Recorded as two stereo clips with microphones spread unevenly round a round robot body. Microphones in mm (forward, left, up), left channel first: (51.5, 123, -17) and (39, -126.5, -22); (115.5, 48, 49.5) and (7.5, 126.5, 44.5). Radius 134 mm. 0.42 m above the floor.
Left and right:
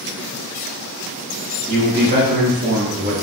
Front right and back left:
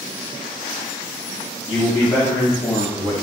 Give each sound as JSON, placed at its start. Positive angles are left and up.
{"t": 1.7, "sound": "a man speaking", "azimuth_deg": -55, "distance_m": 0.9}